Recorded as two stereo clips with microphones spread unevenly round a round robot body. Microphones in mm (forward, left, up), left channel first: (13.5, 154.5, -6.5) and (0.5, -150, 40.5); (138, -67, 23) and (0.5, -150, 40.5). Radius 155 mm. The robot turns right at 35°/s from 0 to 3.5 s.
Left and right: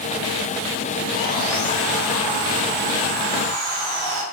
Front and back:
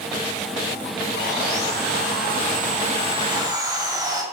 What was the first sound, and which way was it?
Sawing, 165° right.